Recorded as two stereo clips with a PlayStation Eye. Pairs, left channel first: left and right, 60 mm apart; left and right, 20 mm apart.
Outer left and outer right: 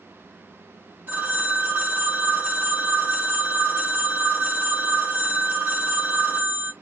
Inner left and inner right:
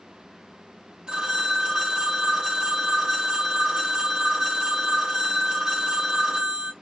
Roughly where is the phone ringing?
Right.